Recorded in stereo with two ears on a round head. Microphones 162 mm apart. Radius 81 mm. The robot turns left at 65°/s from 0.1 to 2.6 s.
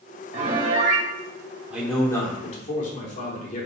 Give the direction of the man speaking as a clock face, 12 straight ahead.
6 o'clock.